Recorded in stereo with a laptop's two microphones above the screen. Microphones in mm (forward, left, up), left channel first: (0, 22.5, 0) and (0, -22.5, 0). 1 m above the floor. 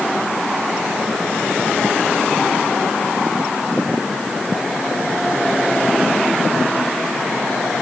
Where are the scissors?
I don't hear scissors.